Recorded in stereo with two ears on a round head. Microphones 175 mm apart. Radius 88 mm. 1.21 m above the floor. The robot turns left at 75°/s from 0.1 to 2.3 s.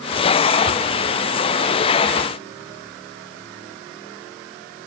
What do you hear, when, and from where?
Only background noise.